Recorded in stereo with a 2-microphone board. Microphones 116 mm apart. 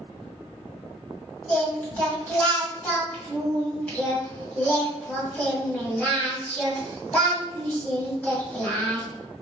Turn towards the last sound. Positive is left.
turn(degrees=10)  # may be behind; listen again after turning